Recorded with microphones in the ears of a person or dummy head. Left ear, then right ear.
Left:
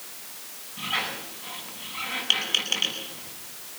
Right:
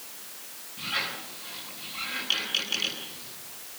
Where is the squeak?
30° left (ahead or behind), 6.5 m.